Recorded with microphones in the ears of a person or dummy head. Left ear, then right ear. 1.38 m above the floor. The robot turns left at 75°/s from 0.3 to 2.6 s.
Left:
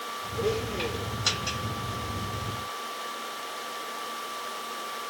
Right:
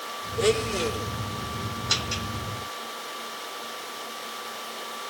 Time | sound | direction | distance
0.4 | a blender | 55° right | 1.4 m